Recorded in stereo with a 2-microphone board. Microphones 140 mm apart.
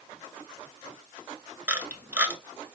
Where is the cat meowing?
No cat meowing in this recording.